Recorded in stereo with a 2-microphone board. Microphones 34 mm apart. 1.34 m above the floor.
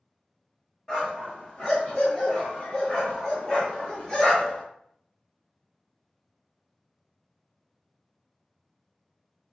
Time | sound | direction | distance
0.9 | a dog barking | 25° left (ahead or behind) | 1.5 m